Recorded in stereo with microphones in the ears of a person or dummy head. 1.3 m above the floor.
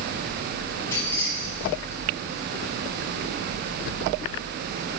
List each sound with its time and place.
0.9 s keys jangling: 15° left (ahead or behind), 8.5 m; by 2.0 s 10° left (ahead or behind), 9 m